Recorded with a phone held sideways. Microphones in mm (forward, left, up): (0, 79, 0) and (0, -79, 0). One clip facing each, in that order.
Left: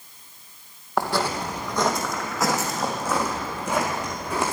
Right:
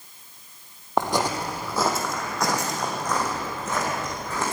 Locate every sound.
1.0 s footsteps: 20° right (ahead or behind), 2 m; by 4.5 s 15° left (ahead or behind), 5 m